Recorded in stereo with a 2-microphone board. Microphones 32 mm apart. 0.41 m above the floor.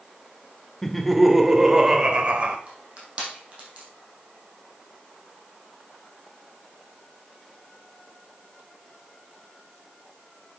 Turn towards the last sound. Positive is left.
turn(degrees=-35)  # may be behind; listen again after turning